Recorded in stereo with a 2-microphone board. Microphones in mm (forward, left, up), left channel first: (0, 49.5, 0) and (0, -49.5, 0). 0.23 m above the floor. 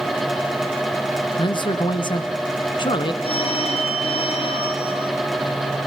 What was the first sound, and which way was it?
A man speaking, 55° left (ahead or behind).